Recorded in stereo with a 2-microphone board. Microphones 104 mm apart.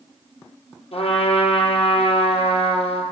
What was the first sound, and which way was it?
A trumpet, 65° left (ahead or behind).